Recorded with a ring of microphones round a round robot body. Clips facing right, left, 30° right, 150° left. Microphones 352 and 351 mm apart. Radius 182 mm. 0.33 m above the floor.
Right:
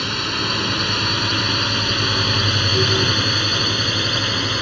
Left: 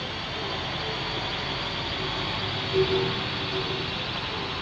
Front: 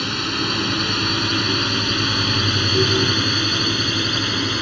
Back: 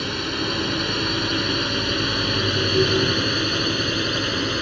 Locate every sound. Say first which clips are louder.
0.0 s a drone: right 8 dB, front 1 dB; 90° right; by 4.6 s 100° right